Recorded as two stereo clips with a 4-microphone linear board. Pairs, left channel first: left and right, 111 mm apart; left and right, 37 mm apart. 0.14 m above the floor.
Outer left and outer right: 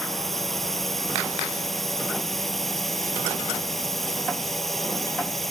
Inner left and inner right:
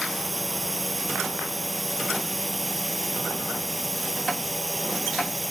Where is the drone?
Centre (ahead or behind).